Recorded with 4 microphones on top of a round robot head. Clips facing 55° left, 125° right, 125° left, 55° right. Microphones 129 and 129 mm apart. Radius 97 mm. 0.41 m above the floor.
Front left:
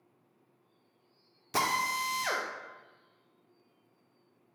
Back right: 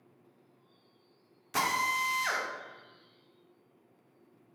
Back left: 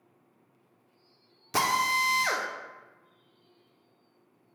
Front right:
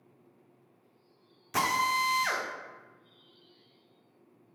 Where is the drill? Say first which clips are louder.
Even, back left 1 dB; 90° left, 0.6 m.